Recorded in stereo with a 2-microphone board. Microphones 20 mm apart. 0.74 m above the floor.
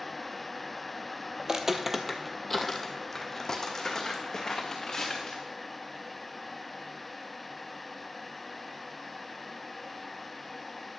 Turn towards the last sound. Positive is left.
turn(degrees=35)  # may be behind; listen again after turning